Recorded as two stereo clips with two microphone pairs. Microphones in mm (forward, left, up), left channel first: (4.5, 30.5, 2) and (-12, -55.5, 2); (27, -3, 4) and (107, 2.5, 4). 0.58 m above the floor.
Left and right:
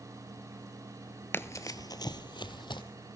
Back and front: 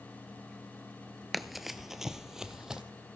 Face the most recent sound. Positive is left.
turn(degrees=80)